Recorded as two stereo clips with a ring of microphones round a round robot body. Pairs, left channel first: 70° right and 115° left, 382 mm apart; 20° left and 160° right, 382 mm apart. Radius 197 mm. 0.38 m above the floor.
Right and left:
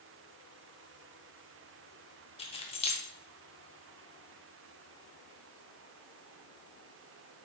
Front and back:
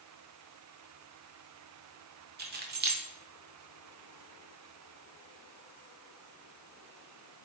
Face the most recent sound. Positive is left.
turn(degrees=-125)